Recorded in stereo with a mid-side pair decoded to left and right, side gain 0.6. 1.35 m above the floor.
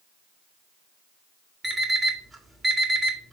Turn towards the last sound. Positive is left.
turn(degrees=-20)